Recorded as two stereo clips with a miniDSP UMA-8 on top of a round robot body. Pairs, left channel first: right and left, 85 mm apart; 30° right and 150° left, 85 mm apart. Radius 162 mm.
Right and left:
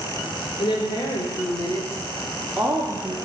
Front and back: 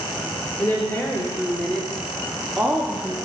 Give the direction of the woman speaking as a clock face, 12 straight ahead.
3 o'clock.